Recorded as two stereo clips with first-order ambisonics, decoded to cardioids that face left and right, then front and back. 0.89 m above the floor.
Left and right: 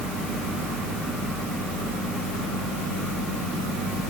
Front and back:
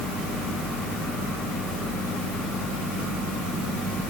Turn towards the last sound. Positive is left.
No sound to turn to.